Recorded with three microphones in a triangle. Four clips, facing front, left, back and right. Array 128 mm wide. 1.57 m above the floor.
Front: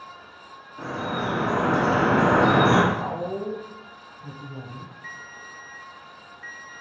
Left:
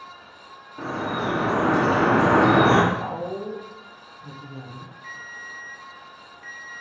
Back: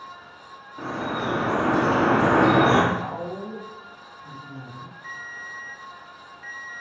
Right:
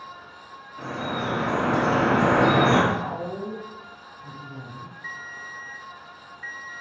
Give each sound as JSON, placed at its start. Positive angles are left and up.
{"t": 0.8, "sound": "dripping", "azimuth_deg": 120, "distance_m": 1.5}
{"t": 2.9, "sound": "a woman speaking", "azimuth_deg": 5, "distance_m": 1.4}
{"t": 5.0, "sound": "a ringtone", "azimuth_deg": -80, "distance_m": 1.1}